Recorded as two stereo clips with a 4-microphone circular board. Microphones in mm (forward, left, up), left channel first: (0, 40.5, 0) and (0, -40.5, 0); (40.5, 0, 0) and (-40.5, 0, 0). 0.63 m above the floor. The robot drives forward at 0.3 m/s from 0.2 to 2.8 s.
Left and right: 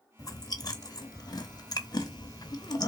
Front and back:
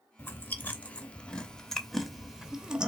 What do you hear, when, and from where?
0.2 s chewing: 55° left, 1.2 m; by 2.9 s 105° left, 1.1 m